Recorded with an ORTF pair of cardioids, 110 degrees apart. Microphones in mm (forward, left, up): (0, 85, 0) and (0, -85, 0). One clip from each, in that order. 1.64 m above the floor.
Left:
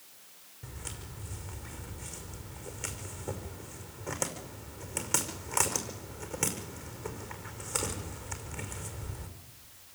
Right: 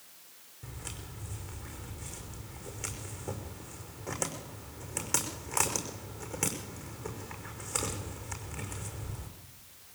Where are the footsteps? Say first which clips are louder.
Even; 5° left, 5.5 m.